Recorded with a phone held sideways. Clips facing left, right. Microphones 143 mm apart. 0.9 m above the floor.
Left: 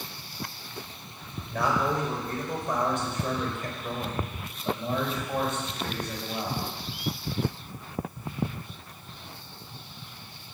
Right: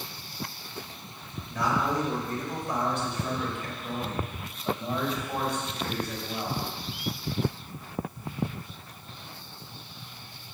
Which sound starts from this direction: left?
A man speaking, at 1.5 s.